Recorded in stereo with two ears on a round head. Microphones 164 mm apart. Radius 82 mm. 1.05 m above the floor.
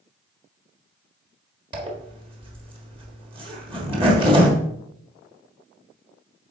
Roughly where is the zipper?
Right.